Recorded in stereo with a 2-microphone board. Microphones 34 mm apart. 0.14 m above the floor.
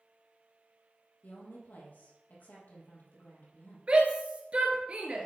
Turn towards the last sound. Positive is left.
turn(degrees=-35)  # may be behind; listen again after turning